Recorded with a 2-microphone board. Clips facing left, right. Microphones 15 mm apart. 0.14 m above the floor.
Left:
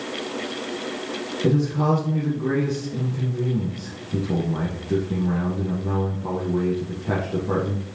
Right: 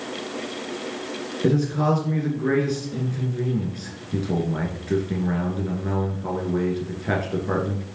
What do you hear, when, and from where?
1.4 s a man speaking: 50° right (ahead or behind), 2 m